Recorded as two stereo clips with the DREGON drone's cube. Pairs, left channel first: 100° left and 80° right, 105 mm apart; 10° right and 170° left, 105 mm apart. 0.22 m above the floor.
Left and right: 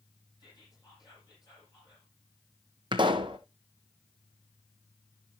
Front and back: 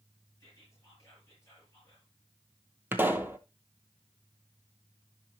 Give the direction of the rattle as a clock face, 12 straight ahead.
No rattle in this recording.